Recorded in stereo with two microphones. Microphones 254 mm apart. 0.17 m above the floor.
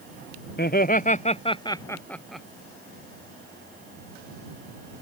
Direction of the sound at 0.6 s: 40° left (ahead or behind).